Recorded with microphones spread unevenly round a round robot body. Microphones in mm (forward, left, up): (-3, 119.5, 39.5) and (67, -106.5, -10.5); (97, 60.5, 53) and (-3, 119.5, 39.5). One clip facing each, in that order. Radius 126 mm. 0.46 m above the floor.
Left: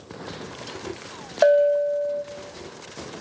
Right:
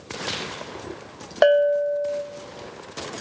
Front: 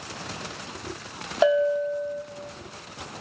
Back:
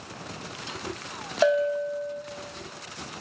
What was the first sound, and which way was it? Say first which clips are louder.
A bell: even, front 2 dB; 115° right.